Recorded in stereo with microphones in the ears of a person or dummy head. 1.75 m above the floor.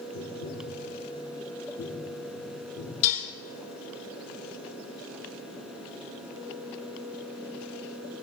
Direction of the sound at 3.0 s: 40° left (ahead or behind).